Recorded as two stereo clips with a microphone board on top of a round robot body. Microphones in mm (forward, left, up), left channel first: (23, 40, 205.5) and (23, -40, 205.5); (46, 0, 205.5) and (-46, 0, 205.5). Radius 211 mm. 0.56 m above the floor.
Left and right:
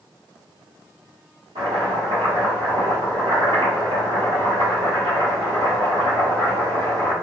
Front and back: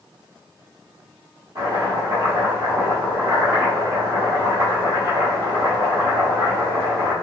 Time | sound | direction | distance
1.6 | chopping | 125° right | 1.5 m